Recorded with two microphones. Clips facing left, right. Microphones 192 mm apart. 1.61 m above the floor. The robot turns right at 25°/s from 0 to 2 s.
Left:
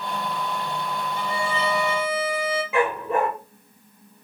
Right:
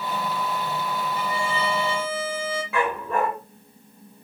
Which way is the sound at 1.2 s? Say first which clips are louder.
Left 2 dB; 35° left (ahead or behind).